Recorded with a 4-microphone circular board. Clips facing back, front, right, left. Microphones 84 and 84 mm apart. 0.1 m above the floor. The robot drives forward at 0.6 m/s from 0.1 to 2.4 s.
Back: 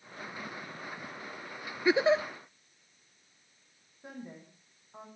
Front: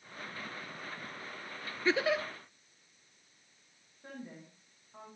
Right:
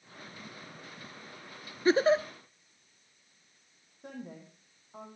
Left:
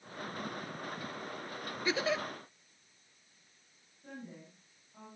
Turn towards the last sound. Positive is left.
turn(degrees=-105)